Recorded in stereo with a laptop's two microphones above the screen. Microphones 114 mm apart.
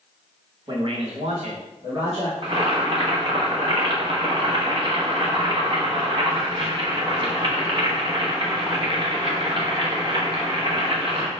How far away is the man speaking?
About 0.8 m.